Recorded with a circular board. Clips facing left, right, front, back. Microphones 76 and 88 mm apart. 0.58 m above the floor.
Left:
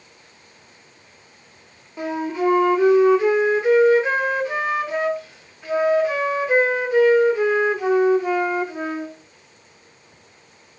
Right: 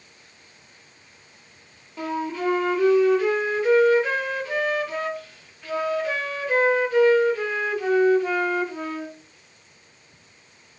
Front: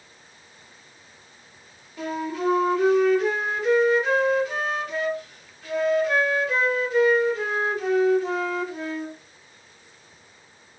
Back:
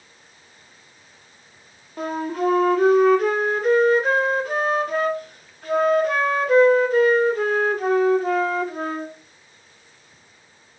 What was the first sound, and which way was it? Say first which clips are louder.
A flute: left 4 dB, back 3 dB; 155° left.